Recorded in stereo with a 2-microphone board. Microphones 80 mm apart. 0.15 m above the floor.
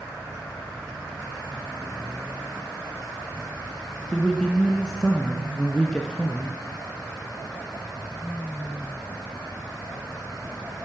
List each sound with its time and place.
4.1 s a man speaking: 10° left (ahead or behind), 1.5 m